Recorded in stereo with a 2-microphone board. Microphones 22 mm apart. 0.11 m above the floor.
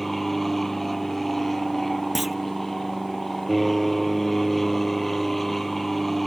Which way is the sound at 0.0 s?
5° left (ahead or behind).